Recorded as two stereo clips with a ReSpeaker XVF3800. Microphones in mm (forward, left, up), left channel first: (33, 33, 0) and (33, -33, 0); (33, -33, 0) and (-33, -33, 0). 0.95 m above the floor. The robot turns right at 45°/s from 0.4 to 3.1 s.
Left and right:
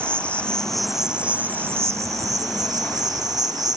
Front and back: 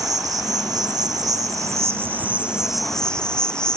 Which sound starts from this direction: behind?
An insect, at 0.0 s.